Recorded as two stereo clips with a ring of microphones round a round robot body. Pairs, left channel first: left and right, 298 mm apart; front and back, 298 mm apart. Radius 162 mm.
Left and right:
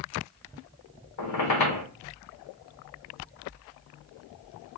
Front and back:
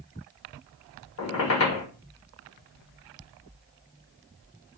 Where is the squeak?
50° left, 0.9 m.